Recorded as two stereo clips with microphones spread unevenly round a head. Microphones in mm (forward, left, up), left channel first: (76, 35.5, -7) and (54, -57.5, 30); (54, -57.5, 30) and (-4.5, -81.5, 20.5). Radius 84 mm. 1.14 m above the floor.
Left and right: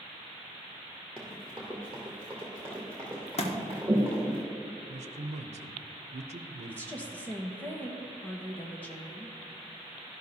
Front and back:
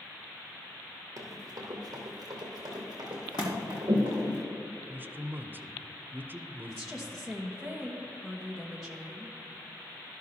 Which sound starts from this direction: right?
A man speaking, at 4.9 s.